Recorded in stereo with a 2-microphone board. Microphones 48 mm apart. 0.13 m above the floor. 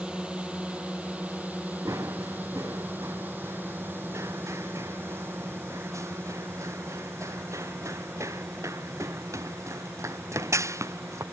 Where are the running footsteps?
85° right; by 11.2 s 75° right (ahead or behind).